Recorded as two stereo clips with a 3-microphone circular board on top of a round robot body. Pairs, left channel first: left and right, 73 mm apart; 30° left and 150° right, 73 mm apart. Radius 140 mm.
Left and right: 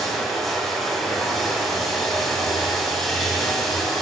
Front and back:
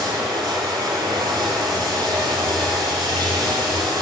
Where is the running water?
Straight behind, 1.9 m.